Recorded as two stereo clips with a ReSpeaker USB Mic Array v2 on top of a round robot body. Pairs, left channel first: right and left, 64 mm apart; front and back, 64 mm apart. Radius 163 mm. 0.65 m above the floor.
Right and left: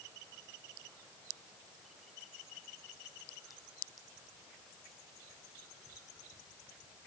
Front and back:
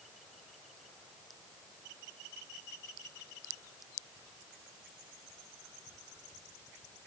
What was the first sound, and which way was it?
Only background noise.